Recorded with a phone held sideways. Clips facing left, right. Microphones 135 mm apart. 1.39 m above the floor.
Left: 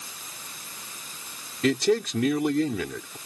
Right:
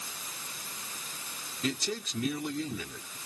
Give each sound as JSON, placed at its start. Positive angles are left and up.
{"t": 1.6, "sound": "a man speaking", "side_deg": 85}